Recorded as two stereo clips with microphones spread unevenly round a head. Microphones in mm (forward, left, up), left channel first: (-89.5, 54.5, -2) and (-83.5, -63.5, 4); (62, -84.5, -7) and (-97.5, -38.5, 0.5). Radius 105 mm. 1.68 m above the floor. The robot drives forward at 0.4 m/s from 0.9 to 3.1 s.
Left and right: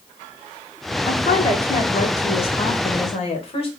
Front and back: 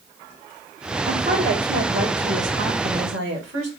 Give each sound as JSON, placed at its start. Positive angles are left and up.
{"t": 1.1, "sound": "a woman speaking", "azimuth_deg": 110, "distance_m": 1.5}